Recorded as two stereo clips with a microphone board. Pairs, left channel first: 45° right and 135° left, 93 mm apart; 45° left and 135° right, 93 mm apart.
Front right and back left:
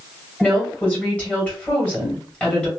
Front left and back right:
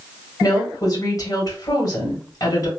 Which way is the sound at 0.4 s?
25° left.